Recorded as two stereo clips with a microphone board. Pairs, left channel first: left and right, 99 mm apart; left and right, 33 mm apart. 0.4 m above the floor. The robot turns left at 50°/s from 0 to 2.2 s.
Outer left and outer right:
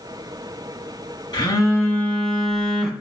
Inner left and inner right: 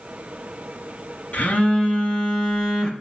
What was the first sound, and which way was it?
A phone buzzing, 50° left.